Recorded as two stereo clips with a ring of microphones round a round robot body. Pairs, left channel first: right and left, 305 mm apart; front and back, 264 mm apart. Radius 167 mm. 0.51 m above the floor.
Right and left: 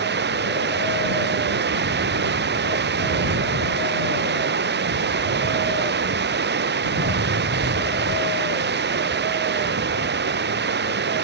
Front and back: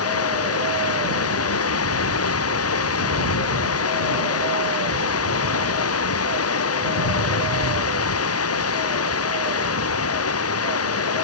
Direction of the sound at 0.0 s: 30° left.